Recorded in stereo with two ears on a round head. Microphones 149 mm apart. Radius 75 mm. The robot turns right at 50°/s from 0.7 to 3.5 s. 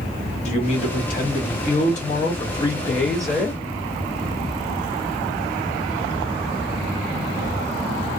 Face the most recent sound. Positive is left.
turn(degrees=-165)